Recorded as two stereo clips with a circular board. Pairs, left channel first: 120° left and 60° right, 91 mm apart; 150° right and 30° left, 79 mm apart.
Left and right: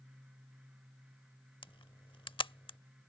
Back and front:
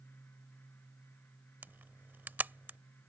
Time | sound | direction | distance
1.6 | a camera shutter | 95° left | ?